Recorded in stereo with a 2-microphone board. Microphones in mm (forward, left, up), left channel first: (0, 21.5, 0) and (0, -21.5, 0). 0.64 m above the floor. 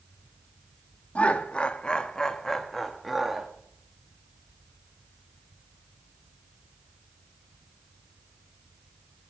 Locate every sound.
1.1 s laughter: 30° left (ahead or behind), 1.2 m; by 3.5 s 5° right (ahead or behind), 1.2 m